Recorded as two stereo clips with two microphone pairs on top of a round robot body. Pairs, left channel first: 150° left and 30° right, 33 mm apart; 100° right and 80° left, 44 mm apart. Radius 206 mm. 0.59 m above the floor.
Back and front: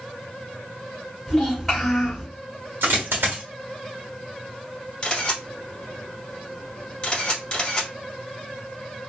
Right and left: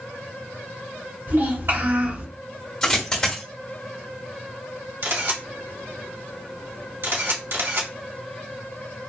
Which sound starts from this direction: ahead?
A dropped coin, at 2.8 s.